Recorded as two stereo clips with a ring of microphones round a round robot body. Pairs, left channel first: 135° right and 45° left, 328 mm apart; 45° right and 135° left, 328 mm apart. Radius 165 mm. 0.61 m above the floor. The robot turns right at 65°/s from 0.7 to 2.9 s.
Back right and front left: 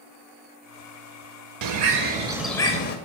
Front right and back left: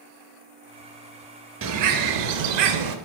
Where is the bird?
80° left, 0.6 m; by 3.0 s 165° left, 0.6 m.